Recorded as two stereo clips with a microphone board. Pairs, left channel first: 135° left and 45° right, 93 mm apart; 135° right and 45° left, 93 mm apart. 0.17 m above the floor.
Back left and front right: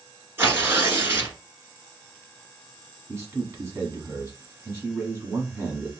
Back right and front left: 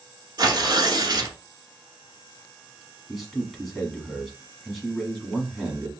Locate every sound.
0.4 s tearing paper: 15° left, 1.2 m
3.1 s a man speaking: 45° right, 1.2 m